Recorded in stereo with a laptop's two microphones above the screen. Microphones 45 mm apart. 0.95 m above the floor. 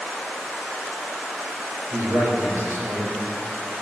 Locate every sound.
1.9 s a man speaking: 75° right (ahead or behind), 5 m